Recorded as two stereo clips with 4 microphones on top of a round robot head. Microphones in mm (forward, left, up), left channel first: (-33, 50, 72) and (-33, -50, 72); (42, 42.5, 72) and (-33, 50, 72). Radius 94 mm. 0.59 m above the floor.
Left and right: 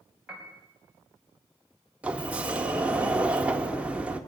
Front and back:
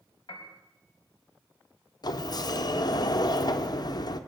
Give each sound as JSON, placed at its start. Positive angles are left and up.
{"t": 0.3, "sound": "a piano", "azimuth_deg": -5, "distance_m": 4.5}
{"t": 2.0, "sound": "a sliding door", "azimuth_deg": -15, "distance_m": 1.5}